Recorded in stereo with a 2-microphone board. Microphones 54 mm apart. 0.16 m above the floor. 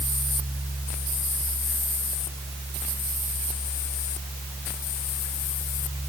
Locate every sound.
Only background noise.